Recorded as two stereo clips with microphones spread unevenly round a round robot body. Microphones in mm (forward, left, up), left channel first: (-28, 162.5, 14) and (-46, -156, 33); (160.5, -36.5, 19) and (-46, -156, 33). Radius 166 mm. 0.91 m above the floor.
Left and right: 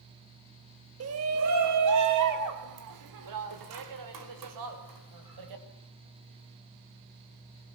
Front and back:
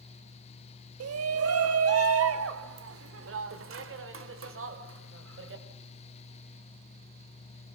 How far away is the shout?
About 1.4 m.